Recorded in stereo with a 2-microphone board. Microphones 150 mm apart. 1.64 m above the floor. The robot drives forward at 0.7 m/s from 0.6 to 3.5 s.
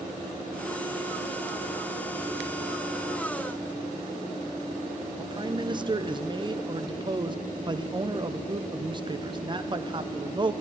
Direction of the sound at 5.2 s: 30° right (ahead or behind).